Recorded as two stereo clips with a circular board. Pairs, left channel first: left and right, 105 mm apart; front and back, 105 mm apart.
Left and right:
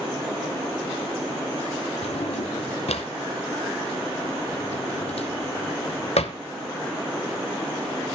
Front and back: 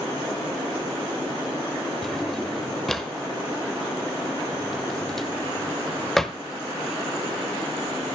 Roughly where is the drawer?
Left.